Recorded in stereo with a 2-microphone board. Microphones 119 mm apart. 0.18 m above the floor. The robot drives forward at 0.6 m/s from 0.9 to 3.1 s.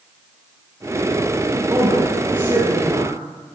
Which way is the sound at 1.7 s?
40° right (ahead or behind).